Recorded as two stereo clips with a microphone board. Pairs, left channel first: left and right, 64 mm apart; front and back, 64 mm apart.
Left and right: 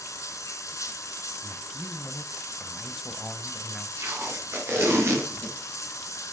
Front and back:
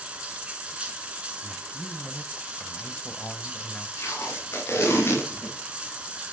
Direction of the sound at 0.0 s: 110° left.